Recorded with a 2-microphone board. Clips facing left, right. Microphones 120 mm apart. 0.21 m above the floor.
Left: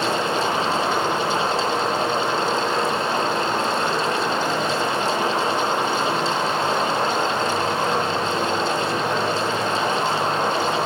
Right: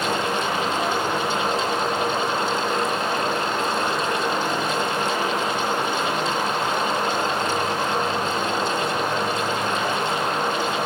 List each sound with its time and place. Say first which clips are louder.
0.0 s running water: left 2 dB; 25° left (ahead or behind), 7.5 m